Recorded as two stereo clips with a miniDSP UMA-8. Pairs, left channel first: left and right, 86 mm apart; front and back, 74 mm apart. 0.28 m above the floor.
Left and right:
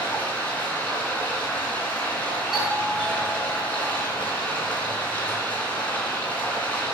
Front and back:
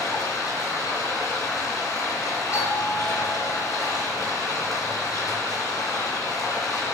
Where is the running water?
20° left, 3 m.